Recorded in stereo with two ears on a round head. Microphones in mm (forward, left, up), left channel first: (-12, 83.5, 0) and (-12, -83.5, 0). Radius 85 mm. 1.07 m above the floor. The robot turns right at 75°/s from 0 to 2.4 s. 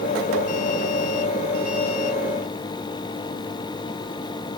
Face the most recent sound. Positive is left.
No sound to turn to.